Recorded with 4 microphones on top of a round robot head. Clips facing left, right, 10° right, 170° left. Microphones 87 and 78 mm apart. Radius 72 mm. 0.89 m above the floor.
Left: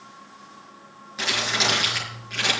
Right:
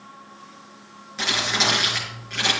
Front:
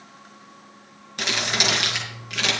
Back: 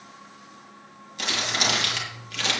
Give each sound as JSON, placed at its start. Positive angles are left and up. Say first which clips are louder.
{"t": 1.2, "sound": "crumpling", "louder": "right 1 dB, front 2 dB", "azimuth_deg": 5, "distance_m": 6.5}